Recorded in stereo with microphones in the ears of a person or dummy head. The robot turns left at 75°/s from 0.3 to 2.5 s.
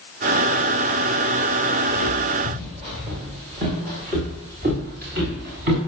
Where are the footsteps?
15° left (ahead or behind), 7.5 m; by 5.8 s 50° right (ahead or behind), 8 m.